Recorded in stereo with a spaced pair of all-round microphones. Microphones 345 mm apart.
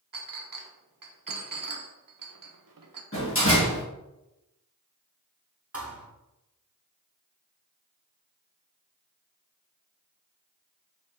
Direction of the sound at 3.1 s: 35° left (ahead or behind).